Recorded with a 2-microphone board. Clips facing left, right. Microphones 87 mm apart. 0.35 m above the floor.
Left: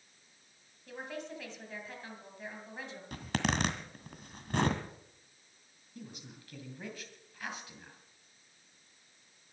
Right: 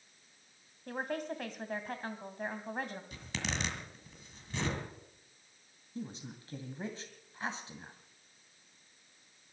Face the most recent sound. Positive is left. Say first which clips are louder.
# right 6 dB
turn(degrees=-30)  # may be behind; listen again after turning